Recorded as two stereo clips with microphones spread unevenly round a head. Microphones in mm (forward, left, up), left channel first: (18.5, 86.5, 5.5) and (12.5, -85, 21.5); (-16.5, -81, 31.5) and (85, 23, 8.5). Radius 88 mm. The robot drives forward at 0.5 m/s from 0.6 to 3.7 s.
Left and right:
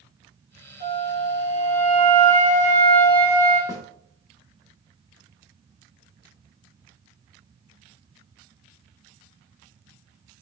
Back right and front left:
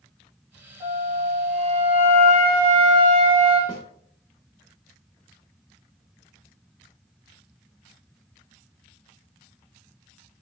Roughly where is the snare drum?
Behind.